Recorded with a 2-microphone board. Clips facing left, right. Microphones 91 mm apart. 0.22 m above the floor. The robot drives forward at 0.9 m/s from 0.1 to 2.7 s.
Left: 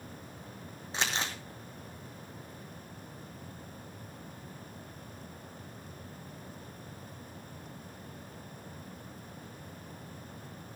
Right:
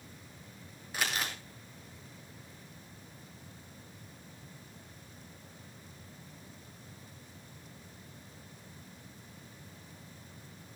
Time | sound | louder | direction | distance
0.9 | crumpling | left 1 dB | 25° left (ahead or behind) | 3 m